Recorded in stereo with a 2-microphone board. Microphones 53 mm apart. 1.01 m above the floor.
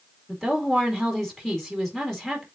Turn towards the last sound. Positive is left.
turn(degrees=5)  # may be behind; listen again after turning